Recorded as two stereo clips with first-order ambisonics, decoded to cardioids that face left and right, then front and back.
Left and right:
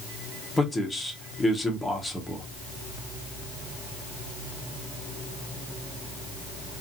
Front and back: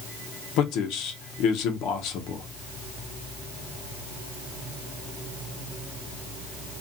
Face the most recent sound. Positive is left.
turn(degrees=5)